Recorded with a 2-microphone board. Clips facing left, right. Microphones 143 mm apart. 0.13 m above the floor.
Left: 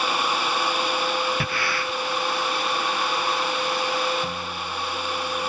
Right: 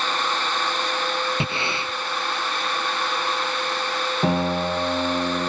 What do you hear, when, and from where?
1.4 s breathing: 25° right (ahead or behind)
4.2 s a piano: 90° right